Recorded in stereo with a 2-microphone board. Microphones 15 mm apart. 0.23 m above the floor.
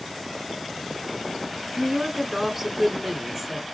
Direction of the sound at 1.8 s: 15° right (ahead or behind).